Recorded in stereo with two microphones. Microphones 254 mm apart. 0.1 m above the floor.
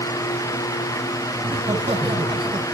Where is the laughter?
25° right (ahead or behind), 5.5 m; by 2.6 s 20° right (ahead or behind), 5 m.